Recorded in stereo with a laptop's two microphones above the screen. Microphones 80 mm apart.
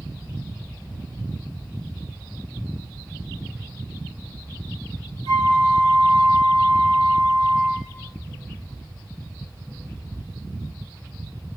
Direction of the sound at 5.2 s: 50° left (ahead or behind).